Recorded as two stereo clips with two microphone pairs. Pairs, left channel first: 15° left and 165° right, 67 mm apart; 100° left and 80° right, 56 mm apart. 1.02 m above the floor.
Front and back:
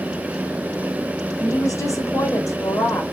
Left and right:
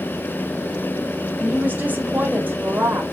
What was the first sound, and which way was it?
A woman speaking, 15° right.